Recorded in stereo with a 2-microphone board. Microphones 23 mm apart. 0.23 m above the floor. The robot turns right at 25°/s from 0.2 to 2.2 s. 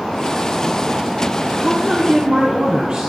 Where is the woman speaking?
50° right (ahead or behind), 1.5 m.